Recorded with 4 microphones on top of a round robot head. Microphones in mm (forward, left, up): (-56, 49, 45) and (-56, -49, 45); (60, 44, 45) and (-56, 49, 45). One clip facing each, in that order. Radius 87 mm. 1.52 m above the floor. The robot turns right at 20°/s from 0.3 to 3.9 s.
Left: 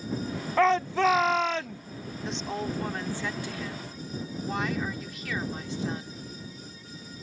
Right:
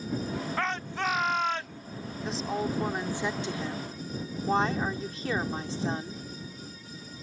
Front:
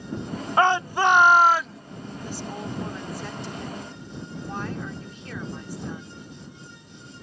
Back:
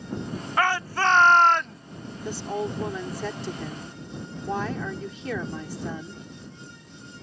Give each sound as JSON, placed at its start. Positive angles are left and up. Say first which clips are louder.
{"t": 0.6, "sound": "a shout", "louder": "left 12 dB, front 4 dB", "azimuth_deg": 65}
{"t": 2.2, "sound": "a woman speaking", "louder": "right 2 dB, back 6 dB", "azimuth_deg": 180}